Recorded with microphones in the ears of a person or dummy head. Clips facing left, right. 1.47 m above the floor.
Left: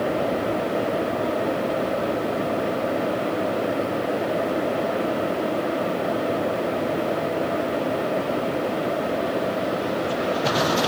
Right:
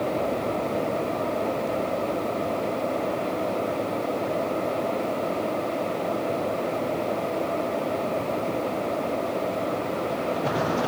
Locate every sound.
Only background noise.